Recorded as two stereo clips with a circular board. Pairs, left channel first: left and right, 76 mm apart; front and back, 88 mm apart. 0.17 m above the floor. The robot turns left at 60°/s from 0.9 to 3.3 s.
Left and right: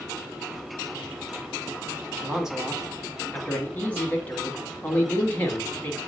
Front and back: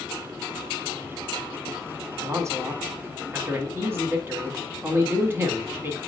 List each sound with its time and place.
2.2 s a man speaking: 155° right, 1.2 m; by 6.0 s 140° left, 1.2 m